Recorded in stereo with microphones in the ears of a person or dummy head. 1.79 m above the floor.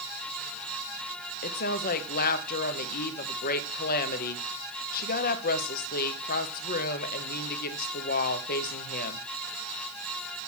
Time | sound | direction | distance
1.4 | a woman speaking | 50° left (ahead or behind) | 1.1 m